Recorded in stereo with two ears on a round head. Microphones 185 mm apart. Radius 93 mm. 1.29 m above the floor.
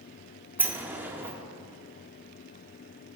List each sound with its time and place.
0.6 s a sliding door: 10° right (ahead or behind), 0.8 m